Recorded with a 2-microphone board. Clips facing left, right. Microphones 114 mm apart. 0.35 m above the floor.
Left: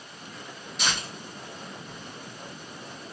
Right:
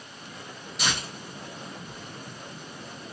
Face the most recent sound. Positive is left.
turn(degrees=0)  # may be behind; listen again after turning